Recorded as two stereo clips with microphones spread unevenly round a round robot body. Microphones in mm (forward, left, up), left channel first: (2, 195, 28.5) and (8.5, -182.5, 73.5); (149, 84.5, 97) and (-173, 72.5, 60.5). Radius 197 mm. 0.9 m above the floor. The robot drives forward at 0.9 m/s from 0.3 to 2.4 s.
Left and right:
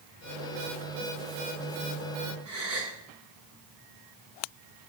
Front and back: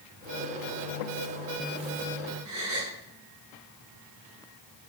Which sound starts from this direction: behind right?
A gasp, at 2.5 s.